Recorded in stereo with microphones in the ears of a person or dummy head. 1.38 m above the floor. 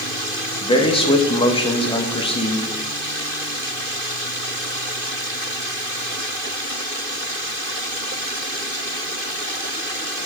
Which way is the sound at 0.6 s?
25° left (ahead or behind).